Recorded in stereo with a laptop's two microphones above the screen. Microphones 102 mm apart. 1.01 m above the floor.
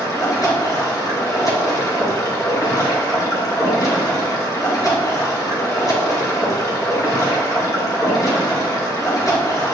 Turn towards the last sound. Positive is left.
turn(degrees=35)  # may be behind; listen again after turning